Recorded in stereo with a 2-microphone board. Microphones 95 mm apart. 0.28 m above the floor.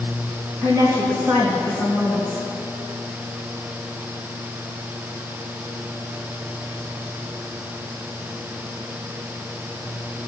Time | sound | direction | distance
0.6 | a woman speaking | 35° right (ahead or behind) | 3 m